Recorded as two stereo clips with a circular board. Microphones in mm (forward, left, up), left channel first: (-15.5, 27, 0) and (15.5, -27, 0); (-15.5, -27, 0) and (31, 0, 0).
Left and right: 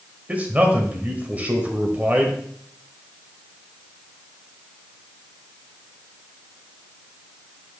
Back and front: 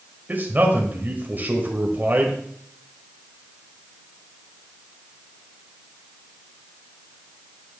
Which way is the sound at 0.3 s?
5° right.